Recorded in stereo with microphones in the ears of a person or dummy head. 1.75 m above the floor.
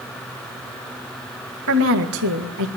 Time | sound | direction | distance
1.7 | a woman speaking | 80° right | 2 m